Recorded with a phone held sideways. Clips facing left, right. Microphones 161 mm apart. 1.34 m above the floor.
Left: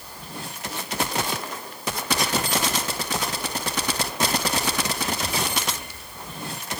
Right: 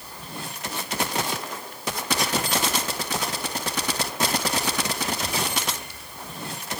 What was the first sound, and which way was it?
Only background noise.